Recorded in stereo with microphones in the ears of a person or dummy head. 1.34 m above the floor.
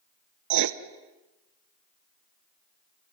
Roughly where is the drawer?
No drawer in this recording.